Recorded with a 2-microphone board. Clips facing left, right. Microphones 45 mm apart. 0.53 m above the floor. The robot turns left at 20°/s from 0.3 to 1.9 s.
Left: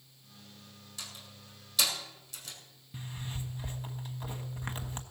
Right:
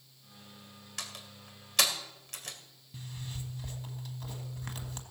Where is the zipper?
25° left (ahead or behind), 1.3 m.